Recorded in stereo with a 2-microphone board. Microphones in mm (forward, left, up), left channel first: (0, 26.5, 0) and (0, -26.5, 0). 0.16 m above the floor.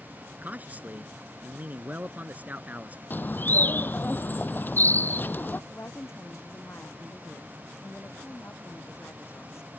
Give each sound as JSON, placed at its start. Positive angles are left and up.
{"t": 0.4, "sound": "a man speaking", "side_deg": -30}
{"t": 3.1, "sound": "a bird", "side_deg": 40}
{"t": 5.7, "sound": "a woman speaking", "side_deg": 55}